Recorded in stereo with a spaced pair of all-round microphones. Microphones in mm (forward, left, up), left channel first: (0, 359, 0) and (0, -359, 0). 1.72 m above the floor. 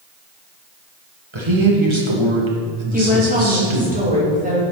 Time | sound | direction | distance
1.3 | a man speaking | 40° right (ahead or behind) | 2 m
2.9 | a woman speaking | 10° right (ahead or behind) | 2.5 m